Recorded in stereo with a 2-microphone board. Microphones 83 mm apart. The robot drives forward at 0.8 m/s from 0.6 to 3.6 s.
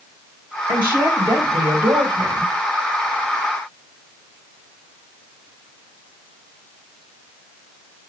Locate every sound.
0.7 s a woman speaking: 55° right (ahead or behind), 4.5 m; by 2.5 s 70° right (ahead or behind), 3.5 m